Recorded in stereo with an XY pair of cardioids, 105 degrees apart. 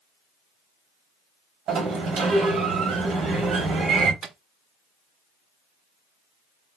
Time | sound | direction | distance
1.7 | a sliding door | 65° right | 1.3 m
4.2 | a microwave | 60° right | 0.5 m